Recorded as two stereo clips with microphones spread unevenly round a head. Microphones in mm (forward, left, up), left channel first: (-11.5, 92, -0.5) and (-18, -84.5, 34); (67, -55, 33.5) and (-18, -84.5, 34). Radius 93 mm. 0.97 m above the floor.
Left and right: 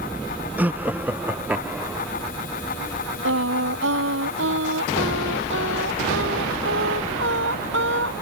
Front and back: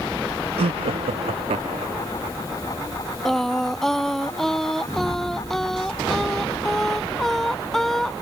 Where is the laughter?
175° right.